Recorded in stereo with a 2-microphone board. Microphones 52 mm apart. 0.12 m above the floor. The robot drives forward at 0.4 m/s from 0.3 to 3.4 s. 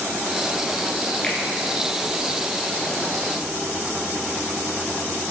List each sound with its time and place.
1.2 s a finger snap: 15° left (ahead or behind), 1.6 m